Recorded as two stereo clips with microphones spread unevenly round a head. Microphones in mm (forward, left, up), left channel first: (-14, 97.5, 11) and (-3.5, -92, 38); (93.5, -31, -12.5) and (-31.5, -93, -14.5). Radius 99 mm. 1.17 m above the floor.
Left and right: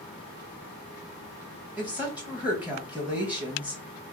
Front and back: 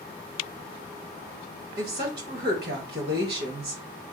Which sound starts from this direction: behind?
A woman speaking, at 1.8 s.